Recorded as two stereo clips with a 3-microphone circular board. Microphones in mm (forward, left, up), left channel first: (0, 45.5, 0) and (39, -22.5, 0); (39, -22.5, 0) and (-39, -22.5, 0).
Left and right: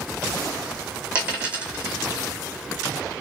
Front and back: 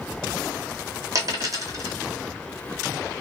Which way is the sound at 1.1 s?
135° right.